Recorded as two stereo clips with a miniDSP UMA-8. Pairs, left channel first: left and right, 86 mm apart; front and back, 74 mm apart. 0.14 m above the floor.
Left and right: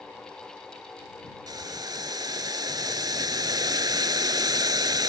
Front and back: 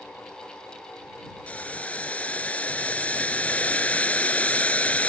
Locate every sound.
1.5 s boiling: 65° right